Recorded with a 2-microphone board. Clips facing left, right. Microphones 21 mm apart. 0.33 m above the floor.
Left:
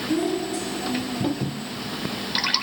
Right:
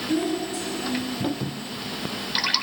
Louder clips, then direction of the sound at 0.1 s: Left 1 dB; 5° right (ahead or behind).